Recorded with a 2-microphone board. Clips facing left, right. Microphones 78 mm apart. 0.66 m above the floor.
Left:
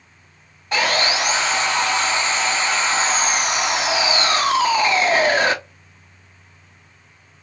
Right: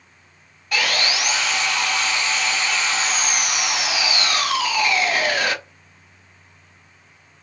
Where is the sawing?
30° left (ahead or behind), 0.5 m.